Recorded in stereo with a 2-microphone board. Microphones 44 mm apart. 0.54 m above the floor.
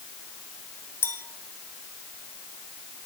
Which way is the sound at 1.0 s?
65° left (ahead or behind).